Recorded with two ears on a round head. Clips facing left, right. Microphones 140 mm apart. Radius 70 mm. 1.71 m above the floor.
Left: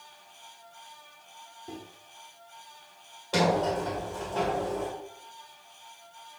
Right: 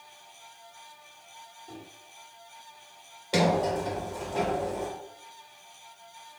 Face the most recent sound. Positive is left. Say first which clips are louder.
# even
turn(degrees=-15)  # may be behind; listen again after turning